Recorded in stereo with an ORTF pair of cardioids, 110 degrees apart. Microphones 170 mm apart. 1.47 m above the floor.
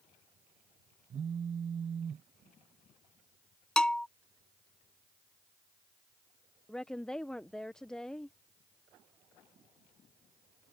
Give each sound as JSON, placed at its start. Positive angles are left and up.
{"t": 1.1, "sound": "a phone buzzing", "azimuth_deg": -35}
{"t": 3.8, "sound": "a bell", "azimuth_deg": 5}
{"t": 6.7, "sound": "a woman speaking", "azimuth_deg": 5}